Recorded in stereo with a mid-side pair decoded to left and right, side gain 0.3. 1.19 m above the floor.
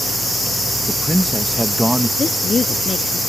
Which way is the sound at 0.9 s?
5° right.